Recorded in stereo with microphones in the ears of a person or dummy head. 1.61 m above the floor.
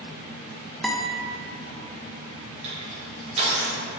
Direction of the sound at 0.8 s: Centre (ahead or behind).